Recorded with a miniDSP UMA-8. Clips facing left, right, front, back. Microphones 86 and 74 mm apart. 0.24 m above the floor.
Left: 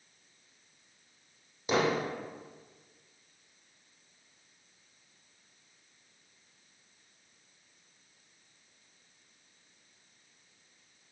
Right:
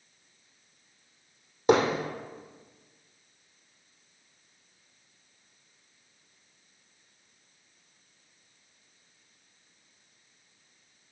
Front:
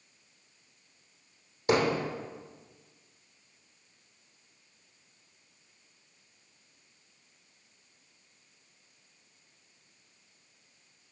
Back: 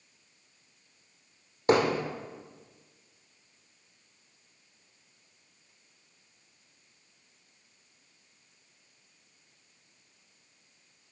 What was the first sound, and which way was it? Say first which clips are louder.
Hammering: right 6 dB, back 2 dB; 130° right.